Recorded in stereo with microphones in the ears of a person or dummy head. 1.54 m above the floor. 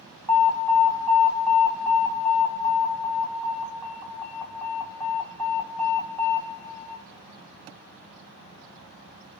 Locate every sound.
0.3 s an alarm: 10° left (ahead or behind), 1.0 m